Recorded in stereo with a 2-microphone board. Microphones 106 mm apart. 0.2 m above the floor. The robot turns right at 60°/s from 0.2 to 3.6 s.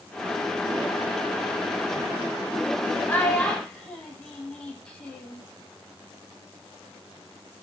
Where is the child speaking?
15° left (ahead or behind), 0.6 m; by 5.5 s 10° left (ahead or behind), 0.6 m.